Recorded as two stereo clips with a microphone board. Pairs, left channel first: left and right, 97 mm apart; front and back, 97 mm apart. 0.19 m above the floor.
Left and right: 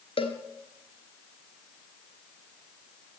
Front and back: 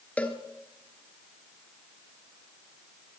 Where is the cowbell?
75° left, 1.4 m.